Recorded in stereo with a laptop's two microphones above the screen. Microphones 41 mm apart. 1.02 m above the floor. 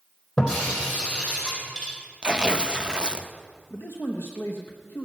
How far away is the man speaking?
About 0.9 m.